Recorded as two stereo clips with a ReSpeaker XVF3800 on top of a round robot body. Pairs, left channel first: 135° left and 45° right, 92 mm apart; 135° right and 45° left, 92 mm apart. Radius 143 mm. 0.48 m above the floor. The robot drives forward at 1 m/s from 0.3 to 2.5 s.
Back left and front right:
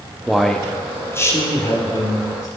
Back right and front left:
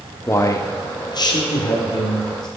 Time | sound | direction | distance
0.3 | a man speaking | 125° right | 0.8 m